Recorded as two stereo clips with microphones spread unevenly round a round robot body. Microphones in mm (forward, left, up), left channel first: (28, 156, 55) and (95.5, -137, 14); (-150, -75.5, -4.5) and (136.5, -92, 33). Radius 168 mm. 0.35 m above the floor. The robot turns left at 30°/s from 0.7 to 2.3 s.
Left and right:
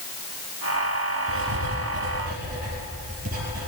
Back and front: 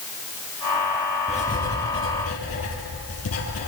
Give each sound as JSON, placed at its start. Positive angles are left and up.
{"t": 1.3, "sound": "writing", "azimuth_deg": -115, "distance_m": 6.5}